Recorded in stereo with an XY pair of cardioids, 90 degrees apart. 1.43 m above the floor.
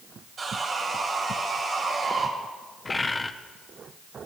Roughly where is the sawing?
Ahead right.